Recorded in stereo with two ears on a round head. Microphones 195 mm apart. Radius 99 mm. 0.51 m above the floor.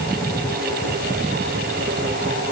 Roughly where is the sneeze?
I don't hear a sneeze.